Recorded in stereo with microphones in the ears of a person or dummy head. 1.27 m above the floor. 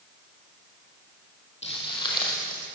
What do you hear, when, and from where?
1.6 s footsteps: 30° left (ahead or behind), 3 m; by 2.7 s 20° left (ahead or behind), 3.5 m